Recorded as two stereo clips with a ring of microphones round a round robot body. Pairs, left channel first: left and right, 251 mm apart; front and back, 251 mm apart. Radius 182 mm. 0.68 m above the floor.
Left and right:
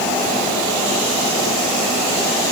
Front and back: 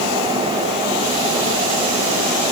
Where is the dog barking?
I don't hear a dog barking.